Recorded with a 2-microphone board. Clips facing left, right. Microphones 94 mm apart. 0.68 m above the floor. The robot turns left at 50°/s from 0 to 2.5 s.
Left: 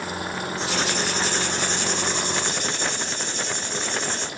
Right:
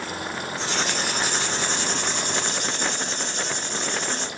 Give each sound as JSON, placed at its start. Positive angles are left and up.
{"t": 0.6, "sound": "writing", "azimuth_deg": 15, "distance_m": 4.5}